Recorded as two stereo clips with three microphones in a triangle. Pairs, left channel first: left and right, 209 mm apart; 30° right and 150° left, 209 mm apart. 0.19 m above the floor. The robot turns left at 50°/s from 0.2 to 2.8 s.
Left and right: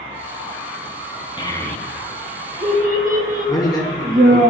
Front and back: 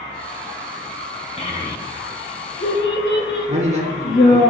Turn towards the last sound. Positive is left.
turn(degrees=145)